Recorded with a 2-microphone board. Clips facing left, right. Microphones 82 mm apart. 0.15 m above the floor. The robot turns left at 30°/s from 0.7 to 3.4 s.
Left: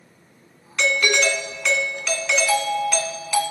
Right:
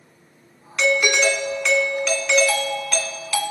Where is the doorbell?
10° right (ahead or behind), 1.5 m; by 3.4 s 15° left (ahead or behind), 1.5 m.